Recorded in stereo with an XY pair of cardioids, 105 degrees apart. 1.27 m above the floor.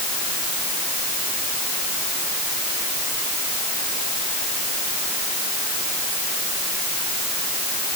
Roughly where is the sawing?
I don't hear sawing.